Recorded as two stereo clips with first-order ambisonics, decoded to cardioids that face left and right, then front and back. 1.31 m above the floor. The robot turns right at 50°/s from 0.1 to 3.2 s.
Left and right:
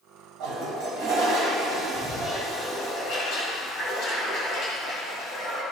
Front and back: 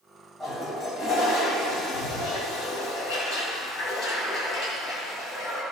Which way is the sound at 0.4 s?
80° right.